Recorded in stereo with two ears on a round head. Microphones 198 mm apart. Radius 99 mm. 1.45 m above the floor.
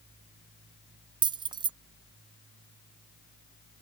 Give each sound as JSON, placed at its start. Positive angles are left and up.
{"t": 1.2, "sound": "keys jangling", "side_deg": -20}